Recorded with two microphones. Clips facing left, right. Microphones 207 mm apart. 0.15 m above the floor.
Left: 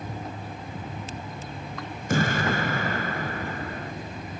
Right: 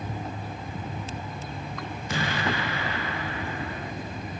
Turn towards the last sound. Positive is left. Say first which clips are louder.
# left 5 dB
turn(degrees=50)  # may be behind; listen again after turning